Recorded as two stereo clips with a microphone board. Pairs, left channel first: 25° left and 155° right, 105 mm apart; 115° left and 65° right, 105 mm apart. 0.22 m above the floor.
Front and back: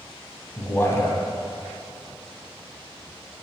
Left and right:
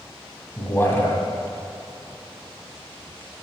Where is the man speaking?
65° left, 1.3 m.